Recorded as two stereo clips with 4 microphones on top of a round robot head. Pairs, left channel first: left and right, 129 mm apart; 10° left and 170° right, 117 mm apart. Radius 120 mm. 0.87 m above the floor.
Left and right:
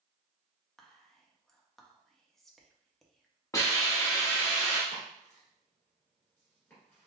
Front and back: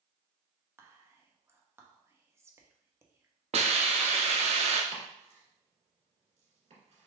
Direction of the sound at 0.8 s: 175° left.